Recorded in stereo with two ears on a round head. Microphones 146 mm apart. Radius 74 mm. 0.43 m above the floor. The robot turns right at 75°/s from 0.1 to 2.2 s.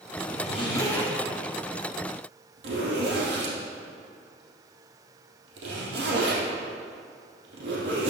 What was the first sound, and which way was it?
A zipper, 60° left (ahead or behind).